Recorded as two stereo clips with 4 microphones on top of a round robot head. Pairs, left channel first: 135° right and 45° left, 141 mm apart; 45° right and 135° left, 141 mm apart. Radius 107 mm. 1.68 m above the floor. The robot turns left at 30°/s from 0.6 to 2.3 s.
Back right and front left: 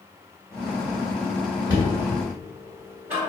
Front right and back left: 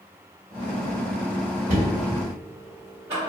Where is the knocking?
105° left, 1.2 m; by 3.3 s 85° left, 1.2 m.